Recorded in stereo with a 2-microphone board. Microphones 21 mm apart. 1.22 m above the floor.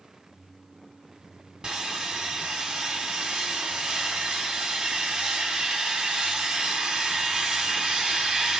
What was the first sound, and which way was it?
Sawing, 40° right (ahead or behind).